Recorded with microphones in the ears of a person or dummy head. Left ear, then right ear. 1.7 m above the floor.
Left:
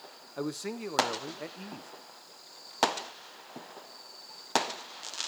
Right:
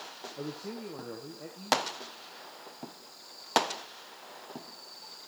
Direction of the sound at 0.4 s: 55° left (ahead or behind).